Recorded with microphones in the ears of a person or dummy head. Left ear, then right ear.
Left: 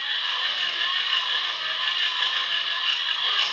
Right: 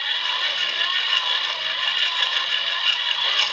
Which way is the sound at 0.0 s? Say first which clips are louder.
Right 3 dB; 20° right (ahead or behind).